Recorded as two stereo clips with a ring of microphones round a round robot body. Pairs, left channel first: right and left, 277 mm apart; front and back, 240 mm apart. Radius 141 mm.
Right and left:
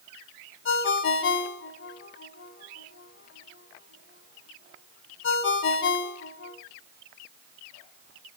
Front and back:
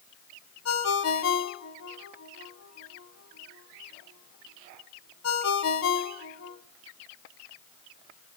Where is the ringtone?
40° right, 1.0 m.